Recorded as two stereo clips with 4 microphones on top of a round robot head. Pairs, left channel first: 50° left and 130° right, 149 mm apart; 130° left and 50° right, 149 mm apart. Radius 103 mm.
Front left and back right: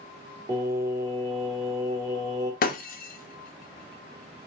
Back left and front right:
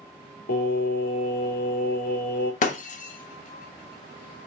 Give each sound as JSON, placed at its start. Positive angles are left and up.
{"t": 0.5, "sound": "singing", "azimuth_deg": 160, "distance_m": 1.0}
{"t": 2.6, "sound": "breaking glass", "azimuth_deg": 85, "distance_m": 0.8}